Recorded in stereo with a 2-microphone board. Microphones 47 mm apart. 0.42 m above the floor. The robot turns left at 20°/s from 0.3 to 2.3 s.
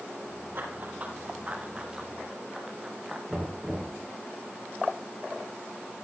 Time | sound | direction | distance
0.6 | running footsteps | 45° right (ahead or behind) | 6.5 m
3.3 | knocking | 5° right (ahead or behind) | 4.5 m